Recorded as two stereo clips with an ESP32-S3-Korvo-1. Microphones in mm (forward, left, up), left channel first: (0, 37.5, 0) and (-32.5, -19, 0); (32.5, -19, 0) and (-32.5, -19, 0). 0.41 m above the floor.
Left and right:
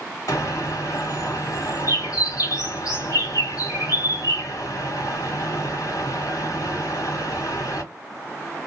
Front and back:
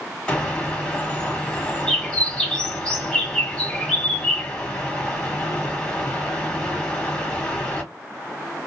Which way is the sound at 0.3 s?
75° left.